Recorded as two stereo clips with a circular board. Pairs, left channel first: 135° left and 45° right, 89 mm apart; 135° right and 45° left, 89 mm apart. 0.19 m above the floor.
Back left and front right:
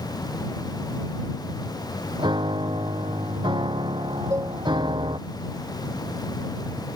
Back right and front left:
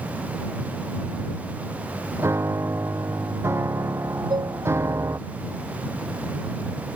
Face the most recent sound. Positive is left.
turn(degrees=10)